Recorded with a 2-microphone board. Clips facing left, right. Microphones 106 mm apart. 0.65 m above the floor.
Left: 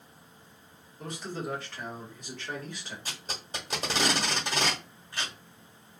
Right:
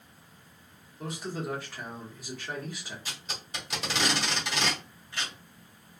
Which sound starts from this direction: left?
Tape being pulled, at 3.0 s.